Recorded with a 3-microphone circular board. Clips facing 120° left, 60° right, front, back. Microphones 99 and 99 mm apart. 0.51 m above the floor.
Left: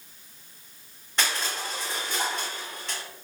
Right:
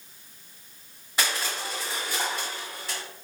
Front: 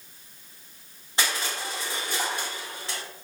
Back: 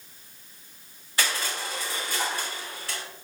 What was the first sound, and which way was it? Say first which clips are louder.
Crushing: even, even; 15° left.